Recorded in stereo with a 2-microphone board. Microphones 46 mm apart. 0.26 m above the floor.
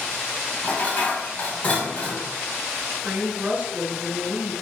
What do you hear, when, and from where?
0.6 s dishes clattering: 30° left (ahead or behind), 0.9 m
3.0 s a woman speaking: 30° right (ahead or behind), 1.7 m